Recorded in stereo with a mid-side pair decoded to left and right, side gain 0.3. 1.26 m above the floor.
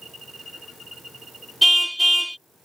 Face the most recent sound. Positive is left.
turn(degrees=-10)